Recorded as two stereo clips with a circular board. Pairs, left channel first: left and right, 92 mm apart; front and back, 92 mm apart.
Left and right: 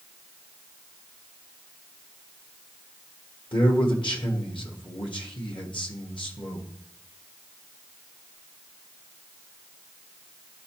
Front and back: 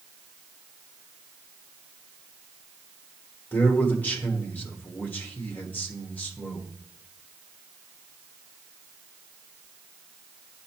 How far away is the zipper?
No zipper in this recording.